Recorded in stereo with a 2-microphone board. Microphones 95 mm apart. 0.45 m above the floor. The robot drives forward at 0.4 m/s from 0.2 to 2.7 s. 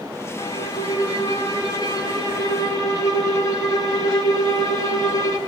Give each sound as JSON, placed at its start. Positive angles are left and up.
{"t": 0.4, "sound": "a violin", "side_deg": 45, "distance_m": 4.0}